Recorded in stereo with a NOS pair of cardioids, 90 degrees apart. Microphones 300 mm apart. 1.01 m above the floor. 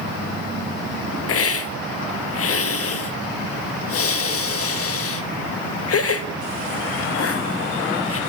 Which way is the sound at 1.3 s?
50° left.